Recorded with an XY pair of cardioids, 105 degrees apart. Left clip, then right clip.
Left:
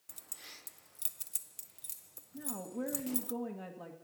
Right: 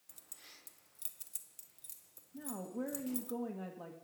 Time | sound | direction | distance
0.1 | keys jangling | 45° left | 0.6 m
2.3 | a woman speaking | straight ahead | 1.5 m